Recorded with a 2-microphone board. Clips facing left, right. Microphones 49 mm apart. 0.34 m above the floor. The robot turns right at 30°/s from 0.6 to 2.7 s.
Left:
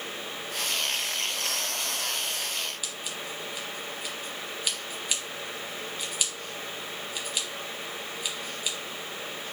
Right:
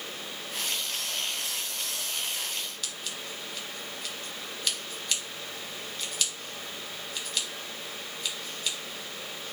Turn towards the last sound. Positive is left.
turn(degrees=10)  # may be behind; listen again after turning